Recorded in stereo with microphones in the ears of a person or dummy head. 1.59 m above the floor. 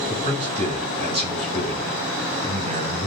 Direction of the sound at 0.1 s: 40° right (ahead or behind).